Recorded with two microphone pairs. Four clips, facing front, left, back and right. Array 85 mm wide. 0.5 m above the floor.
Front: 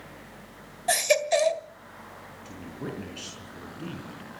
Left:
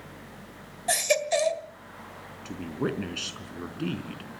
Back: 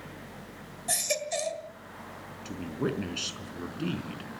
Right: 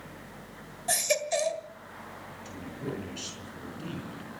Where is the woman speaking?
115° left, 4.5 m.